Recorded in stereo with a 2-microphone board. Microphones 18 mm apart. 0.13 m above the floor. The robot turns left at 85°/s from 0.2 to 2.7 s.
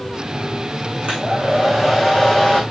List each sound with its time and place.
1.0 s a hair dryer: 105° right, 5.5 m; by 2.6 s 120° left, 5.5 m